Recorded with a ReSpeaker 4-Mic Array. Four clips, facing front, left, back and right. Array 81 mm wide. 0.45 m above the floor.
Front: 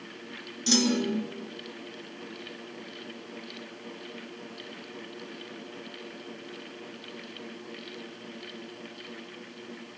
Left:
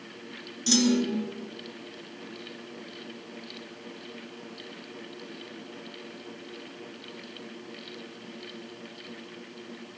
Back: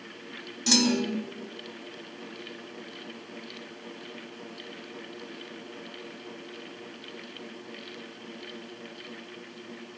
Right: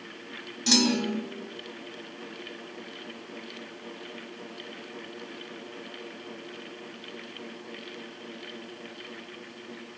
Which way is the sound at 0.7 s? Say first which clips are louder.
Left 1 dB, even; 140° right.